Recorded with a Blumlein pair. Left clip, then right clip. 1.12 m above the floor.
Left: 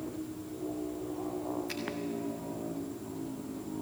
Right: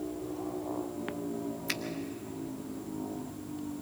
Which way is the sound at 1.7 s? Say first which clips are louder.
Right 4 dB; 60° right.